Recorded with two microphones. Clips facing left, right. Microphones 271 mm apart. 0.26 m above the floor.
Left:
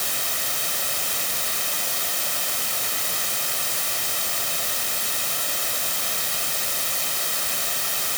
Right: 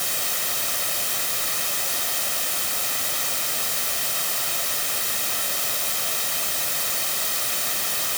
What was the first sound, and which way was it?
Only background noise.